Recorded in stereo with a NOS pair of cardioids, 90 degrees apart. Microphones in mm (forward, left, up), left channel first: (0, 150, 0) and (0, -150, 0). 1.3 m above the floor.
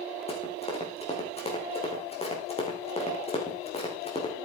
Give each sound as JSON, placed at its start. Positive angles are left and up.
{"t": 0.3, "sound": "running footsteps", "azimuth_deg": 20, "distance_m": 6.0}